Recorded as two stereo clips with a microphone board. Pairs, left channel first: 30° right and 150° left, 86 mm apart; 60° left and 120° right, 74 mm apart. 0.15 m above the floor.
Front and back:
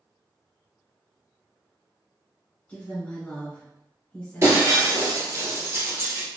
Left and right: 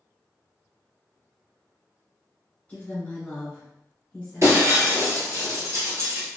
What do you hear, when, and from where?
2.7 s a woman speaking: 25° left, 1.5 m
4.4 s breaking glass: 160° right, 1.7 m